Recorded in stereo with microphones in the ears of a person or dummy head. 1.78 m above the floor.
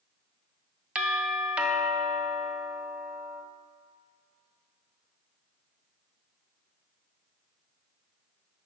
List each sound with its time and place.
0.9 s a doorbell: 5° right (ahead or behind), 1.0 m